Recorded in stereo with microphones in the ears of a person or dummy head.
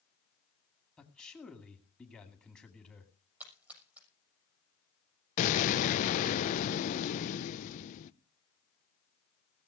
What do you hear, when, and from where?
1.0 s a man speaking: 10° left (ahead or behind), 2 m
3.4 s a splash: 10° right (ahead or behind), 6.5 m
5.4 s an explosion: 40° left (ahead or behind), 0.8 m